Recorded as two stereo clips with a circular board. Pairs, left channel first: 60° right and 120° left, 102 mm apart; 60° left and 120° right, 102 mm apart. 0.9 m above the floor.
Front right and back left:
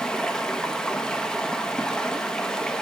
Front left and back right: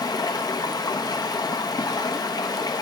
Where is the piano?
No piano in this recording.